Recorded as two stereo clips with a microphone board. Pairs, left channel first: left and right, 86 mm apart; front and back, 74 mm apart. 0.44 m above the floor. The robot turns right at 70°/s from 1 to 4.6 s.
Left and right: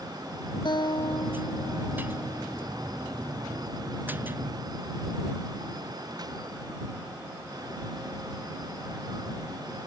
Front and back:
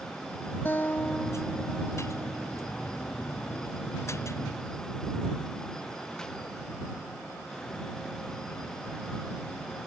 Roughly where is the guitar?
Ahead left.